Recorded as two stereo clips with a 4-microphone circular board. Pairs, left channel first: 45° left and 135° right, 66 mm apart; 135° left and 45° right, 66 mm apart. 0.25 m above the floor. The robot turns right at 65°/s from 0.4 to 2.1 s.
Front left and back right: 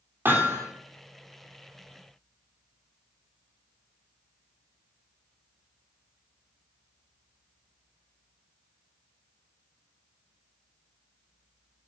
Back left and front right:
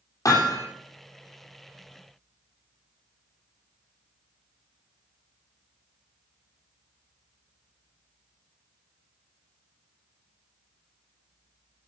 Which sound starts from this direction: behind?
Hammering, at 0.2 s.